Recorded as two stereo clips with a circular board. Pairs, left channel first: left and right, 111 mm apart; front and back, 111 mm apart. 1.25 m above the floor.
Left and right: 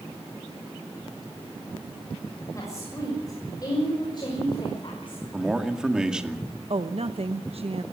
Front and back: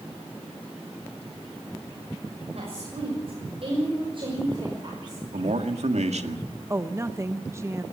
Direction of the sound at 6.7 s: 115° right.